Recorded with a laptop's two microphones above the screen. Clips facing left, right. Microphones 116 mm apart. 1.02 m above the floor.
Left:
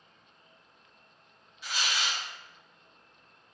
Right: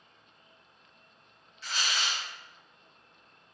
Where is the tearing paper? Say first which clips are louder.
Even; 15° left (ahead or behind), 1.6 m.